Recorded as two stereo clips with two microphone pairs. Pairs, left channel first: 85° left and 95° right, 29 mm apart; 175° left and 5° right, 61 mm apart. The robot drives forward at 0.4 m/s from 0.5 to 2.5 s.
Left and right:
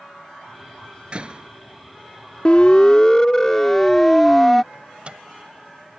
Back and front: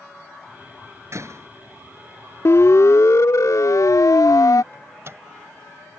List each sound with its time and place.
1.1 s a door slam: 40° right
2.5 s a siren: 140° left; by 4.6 s 170° left
4.7 s a microwave: 45° right